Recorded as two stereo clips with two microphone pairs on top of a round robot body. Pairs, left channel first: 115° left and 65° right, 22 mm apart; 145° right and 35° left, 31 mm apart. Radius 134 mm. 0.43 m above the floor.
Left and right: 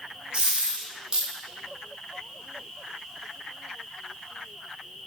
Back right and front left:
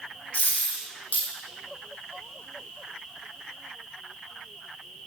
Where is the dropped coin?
110° right, 2 m.